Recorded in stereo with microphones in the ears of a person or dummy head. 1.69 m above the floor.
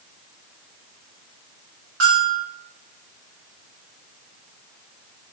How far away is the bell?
About 1.5 m.